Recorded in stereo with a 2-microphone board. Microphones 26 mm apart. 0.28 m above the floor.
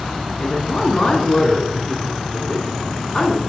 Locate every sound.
0.4 s a woman speaking: 20° left (ahead or behind), 3 m